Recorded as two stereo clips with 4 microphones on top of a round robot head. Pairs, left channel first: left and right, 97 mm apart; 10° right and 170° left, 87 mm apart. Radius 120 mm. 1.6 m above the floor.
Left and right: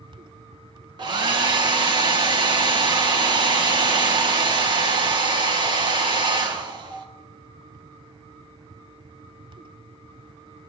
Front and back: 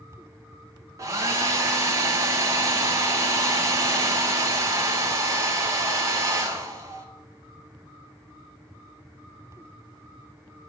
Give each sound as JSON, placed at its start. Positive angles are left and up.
{"t": 1.0, "sound": "a hair dryer", "azimuth_deg": -130, "distance_m": 1.7}